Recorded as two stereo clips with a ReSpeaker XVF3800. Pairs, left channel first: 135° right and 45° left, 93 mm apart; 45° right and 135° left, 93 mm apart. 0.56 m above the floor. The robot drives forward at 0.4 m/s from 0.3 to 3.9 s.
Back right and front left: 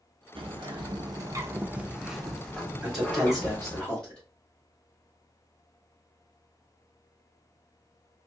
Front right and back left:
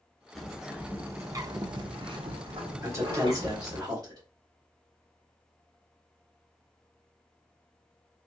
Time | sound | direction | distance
0.3 | a bird | 45° left | 0.6 m
2.8 | a man speaking | 125° left | 1.1 m